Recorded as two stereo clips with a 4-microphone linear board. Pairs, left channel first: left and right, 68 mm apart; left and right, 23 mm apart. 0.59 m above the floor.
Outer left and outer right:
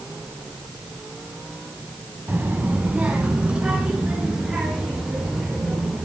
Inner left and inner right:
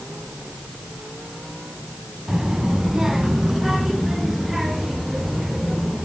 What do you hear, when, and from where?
2.3 s a child speaking: 25° right (ahead or behind), 2 m; by 6.0 s 10° right (ahead or behind), 7 m